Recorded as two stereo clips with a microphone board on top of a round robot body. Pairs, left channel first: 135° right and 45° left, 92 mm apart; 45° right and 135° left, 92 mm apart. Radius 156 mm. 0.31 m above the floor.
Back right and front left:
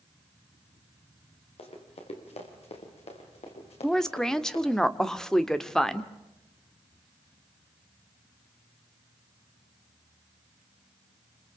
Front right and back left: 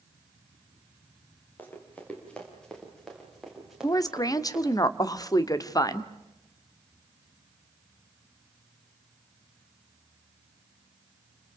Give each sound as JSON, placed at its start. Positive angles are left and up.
{"t": 1.6, "sound": "running footsteps", "azimuth_deg": -120, "distance_m": 6.5}
{"t": 3.8, "sound": "a woman speaking", "azimuth_deg": -55, "distance_m": 1.6}